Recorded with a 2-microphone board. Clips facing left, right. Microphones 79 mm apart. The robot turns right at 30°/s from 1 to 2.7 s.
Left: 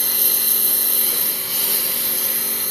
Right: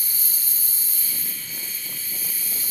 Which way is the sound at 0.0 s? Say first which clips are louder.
Left 11 dB; 70° left.